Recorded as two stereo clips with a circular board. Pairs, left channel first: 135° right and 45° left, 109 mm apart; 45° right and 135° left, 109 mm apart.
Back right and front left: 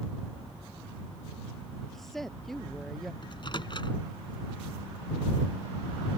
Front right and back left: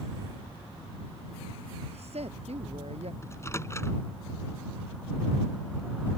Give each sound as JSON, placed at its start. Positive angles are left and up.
{"t": 1.9, "sound": "a woman speaking", "azimuth_deg": 135}
{"t": 3.2, "sound": "a microwave", "azimuth_deg": -105}